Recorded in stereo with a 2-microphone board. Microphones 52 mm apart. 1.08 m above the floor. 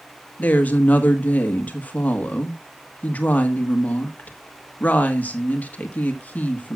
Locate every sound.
0.4 s a woman speaking: 30° left (ahead or behind), 1.4 m